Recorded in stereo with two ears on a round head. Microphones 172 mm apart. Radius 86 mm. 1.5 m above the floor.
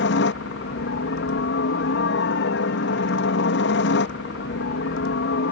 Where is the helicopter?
65° left (ahead or behind).